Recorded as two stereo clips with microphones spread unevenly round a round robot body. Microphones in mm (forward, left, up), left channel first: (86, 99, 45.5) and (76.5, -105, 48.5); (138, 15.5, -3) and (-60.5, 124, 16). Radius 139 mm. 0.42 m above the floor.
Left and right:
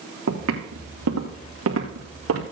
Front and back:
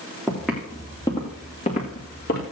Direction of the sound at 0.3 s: 125° right.